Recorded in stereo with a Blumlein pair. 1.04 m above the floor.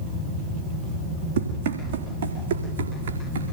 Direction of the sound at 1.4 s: 60° right.